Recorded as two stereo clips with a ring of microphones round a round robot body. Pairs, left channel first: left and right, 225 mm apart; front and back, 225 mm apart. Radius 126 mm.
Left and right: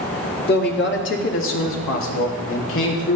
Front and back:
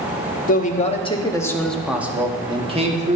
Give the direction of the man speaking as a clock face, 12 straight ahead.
10 o'clock.